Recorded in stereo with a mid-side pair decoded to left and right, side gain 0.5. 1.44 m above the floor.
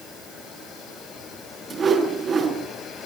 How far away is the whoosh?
About 6.5 m.